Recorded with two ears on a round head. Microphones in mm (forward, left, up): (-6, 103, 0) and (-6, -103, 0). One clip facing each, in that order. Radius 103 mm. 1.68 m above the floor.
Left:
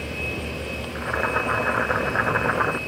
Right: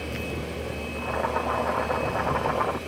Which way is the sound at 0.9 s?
20° left (ahead or behind).